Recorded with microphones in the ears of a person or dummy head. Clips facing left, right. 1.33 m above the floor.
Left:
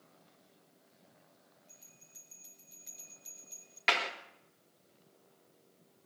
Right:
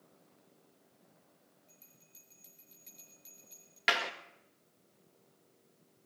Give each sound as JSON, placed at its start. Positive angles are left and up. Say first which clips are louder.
{"t": 1.7, "sound": "a bell", "louder": "left 1 dB", "side_deg": 0, "distance_m": 5.0}
{"t": 3.9, "sound": "a clap", "louder": "even", "side_deg": -10, "distance_m": 2.0}